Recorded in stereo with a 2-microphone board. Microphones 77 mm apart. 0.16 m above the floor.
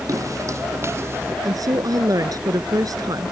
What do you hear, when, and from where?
0.1 s footsteps: 45° right (ahead or behind); by 1.4 s 30° right (ahead or behind)
1.4 s a woman speaking: 50° right (ahead or behind)